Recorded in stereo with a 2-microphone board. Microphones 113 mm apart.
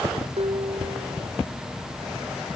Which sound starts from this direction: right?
Dishes clattering, at 0.4 s.